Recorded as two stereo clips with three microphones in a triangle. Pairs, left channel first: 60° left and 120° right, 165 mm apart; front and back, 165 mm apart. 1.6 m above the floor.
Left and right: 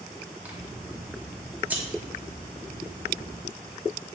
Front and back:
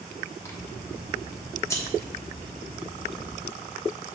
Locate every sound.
0.4 s scissors: 50° right, 1.2 m